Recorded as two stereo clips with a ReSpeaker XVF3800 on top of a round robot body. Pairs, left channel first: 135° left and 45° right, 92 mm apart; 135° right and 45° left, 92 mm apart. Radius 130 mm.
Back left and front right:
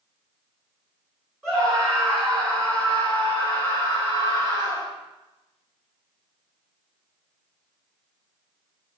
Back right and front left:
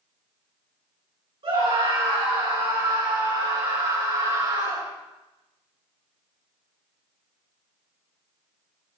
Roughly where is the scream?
Ahead left.